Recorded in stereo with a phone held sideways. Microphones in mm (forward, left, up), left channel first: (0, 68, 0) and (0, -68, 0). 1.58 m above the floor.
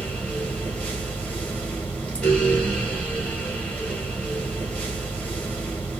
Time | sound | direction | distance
0.0 | a fan | 10° left (ahead or behind) | 0.9 m